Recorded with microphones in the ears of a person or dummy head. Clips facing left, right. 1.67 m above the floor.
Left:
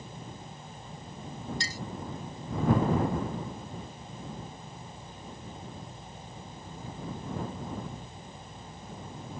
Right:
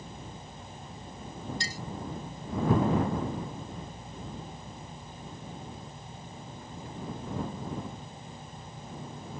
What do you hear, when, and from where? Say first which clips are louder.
1.6 s a clink: even; 65° left (ahead or behind)